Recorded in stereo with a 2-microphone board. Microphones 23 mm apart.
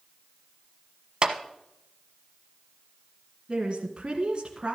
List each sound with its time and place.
1.2 s a clap: 35° right (ahead or behind), 1.0 m
3.5 s a woman speaking: 40° right (ahead or behind), 1.7 m